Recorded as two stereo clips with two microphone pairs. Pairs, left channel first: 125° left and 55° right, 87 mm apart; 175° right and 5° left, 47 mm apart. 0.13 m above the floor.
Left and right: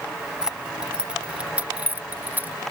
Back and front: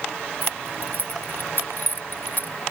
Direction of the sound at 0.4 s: 140° right.